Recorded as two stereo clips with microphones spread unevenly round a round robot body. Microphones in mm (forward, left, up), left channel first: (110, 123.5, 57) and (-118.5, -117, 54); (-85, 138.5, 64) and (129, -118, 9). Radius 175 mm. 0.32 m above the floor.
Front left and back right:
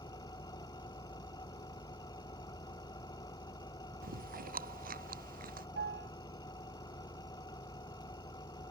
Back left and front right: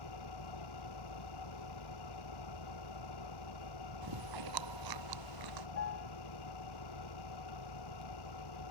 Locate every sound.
0.0 s an engine running: 125° left
4.0 s chewing: 70° right
5.8 s a piano: 170° left